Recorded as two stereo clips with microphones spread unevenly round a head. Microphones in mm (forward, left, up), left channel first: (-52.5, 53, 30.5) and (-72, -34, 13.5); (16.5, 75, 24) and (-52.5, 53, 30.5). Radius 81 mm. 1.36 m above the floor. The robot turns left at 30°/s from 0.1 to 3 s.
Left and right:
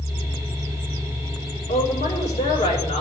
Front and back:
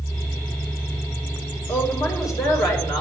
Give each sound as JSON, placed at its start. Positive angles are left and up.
{"t": 1.7, "sound": "a woman speaking", "azimuth_deg": 75, "distance_m": 5.0}